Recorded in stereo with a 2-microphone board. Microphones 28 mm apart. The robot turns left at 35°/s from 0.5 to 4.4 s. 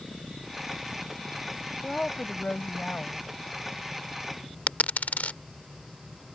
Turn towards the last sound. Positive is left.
turn(degrees=70)  # may be behind; listen again after turning